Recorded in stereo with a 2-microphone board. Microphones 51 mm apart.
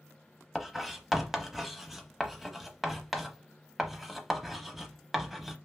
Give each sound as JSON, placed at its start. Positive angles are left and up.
{"t": 0.6, "sound": "writing", "side_deg": -5, "distance_m": 0.8}